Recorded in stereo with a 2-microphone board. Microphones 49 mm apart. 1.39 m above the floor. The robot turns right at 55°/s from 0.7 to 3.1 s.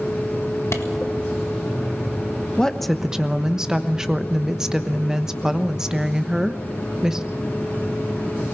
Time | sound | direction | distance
0.7 | a clap | 70° left (ahead or behind) | 1.7 m
2.6 | a woman speaking | 15° left (ahead or behind) | 1.1 m